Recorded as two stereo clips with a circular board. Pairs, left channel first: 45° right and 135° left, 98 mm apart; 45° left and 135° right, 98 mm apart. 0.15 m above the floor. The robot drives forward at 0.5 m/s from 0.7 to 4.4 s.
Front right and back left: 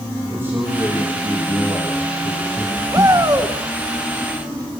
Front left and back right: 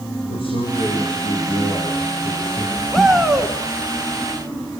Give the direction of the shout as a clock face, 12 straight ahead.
8 o'clock.